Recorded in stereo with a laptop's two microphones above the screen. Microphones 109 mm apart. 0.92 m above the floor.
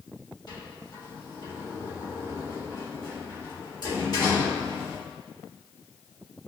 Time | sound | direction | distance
0.5 | a sliding door | 45° left (ahead or behind) | 1.6 m